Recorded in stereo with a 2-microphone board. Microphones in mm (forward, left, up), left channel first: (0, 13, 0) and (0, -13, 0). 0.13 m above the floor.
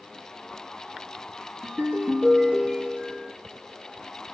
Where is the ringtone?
50° right (ahead or behind), 1.0 m.